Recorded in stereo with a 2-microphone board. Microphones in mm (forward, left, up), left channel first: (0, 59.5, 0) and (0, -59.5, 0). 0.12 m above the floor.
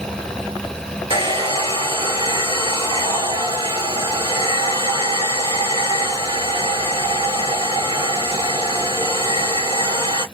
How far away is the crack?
I don't hear a crack.